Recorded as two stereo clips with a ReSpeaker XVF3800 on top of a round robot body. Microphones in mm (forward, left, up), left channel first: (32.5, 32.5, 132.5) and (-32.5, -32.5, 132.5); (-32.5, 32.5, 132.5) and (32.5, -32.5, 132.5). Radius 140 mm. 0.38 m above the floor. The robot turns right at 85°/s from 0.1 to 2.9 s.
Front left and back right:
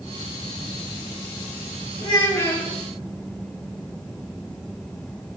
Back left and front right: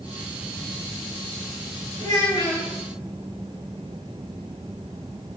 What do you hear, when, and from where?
2.0 s a child speaking: 80° left, 8 m; by 2.7 s 140° left, 8 m